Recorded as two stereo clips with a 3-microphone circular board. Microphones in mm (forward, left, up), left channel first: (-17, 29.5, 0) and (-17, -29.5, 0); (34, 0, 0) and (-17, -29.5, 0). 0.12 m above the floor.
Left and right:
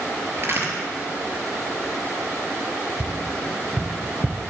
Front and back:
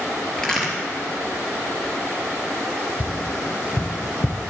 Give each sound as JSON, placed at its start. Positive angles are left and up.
{"t": 0.4, "sound": "a crack", "azimuth_deg": -50, "distance_m": 3.0}
{"t": 3.0, "sound": "tapping", "azimuth_deg": -10, "distance_m": 1.0}